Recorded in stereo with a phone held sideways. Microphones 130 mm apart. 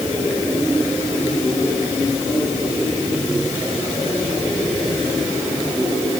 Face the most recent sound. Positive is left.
No sound to turn to.